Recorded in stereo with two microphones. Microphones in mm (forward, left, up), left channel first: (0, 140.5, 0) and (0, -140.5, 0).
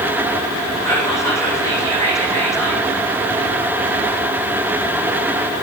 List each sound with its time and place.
0.8 s whispering: 10° left (ahead or behind), 8 m